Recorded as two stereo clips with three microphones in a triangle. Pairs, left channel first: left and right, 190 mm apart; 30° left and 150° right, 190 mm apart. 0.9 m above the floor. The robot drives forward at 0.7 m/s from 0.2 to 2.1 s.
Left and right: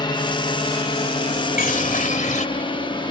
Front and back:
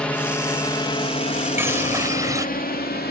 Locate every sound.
0.0 s a drone: 105° left; by 3.1 s 30° left
1.6 s a bird: 130° left; by 2.5 s 135° left